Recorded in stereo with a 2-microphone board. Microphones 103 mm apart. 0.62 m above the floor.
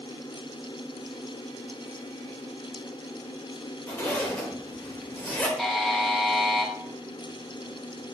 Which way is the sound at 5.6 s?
Centre (ahead or behind).